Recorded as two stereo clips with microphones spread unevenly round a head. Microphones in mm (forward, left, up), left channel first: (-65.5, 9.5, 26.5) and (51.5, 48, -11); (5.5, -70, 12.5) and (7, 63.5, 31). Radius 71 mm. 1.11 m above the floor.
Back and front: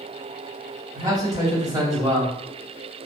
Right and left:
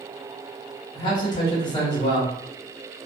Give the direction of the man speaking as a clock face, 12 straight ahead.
1 o'clock.